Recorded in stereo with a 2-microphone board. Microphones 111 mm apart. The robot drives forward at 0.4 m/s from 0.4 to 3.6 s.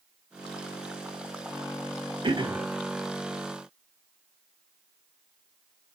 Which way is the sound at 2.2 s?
50° right (ahead or behind).